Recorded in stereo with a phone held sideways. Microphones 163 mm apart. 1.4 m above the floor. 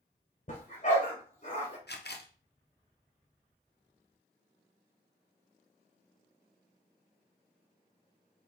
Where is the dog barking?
45° left (ahead or behind), 2.5 m.